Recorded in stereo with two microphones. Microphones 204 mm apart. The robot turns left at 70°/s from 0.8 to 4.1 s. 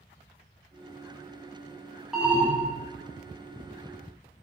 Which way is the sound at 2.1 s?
5° right (ahead or behind).